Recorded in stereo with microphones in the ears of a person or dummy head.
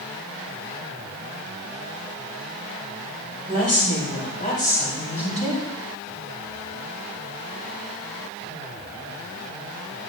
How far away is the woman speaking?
About 4 m.